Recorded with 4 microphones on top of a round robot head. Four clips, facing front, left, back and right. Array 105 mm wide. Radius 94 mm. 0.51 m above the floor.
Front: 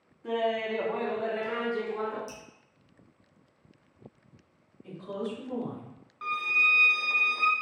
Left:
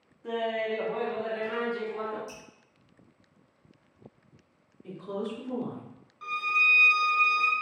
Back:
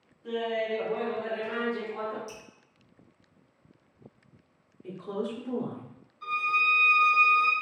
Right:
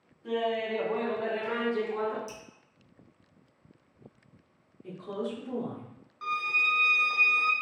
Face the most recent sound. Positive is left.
turn(degrees=-25)